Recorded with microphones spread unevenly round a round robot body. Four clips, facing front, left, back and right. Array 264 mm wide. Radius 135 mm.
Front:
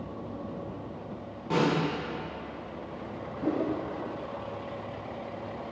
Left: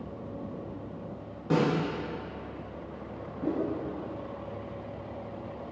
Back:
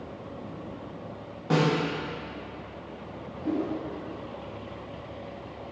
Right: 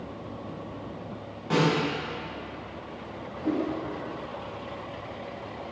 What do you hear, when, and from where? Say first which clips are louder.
1.5 s a snare drum: right 2 dB, back 2 dB; 145° left, 1.7 m
3.4 s a whoosh: right 2 dB, even; 20° left, 1.0 m